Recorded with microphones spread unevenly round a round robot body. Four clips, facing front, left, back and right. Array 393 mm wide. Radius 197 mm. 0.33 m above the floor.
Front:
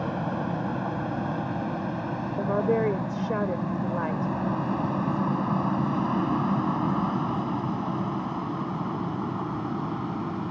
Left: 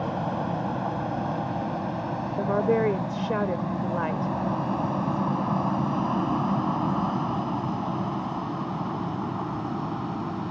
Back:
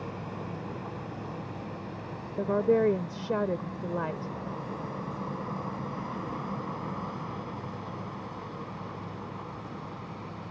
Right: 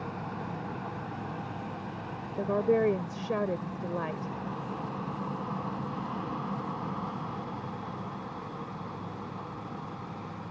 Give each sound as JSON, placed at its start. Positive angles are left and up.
{"t": 0.0, "sound": "an aircraft", "azimuth_deg": 35}
{"t": 2.4, "sound": "a woman speaking", "azimuth_deg": 180}